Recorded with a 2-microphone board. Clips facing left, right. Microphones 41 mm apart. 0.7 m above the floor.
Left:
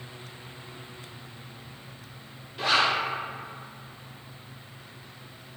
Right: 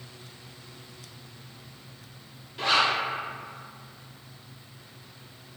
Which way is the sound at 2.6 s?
Centre (ahead or behind).